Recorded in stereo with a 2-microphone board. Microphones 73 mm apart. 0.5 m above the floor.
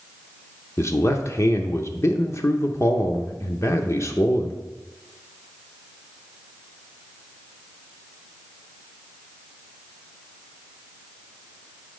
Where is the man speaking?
40° left (ahead or behind), 0.8 m.